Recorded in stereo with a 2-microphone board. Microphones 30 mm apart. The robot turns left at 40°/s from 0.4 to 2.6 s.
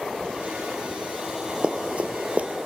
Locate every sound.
1.6 s running footsteps: 40° right (ahead or behind), 0.9 m; by 2.5 s 55° right (ahead or behind), 0.9 m